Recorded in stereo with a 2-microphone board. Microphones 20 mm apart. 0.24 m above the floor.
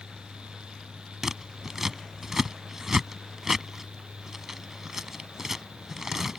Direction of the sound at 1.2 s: 20° right (ahead or behind).